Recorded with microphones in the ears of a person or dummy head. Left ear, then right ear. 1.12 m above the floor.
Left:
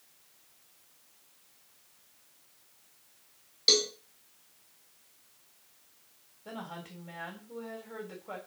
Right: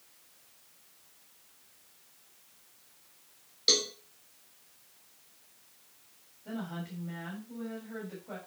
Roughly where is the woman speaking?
Left.